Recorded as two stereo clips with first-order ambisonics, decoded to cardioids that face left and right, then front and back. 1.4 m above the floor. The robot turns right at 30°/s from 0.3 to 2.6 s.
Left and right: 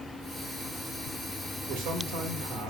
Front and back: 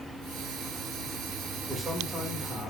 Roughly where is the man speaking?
Right.